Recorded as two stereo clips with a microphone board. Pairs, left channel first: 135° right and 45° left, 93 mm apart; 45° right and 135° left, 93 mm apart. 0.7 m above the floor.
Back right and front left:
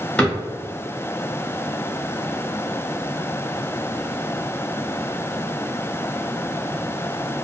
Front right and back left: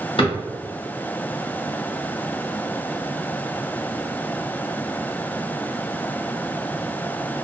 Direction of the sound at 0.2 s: 55° right.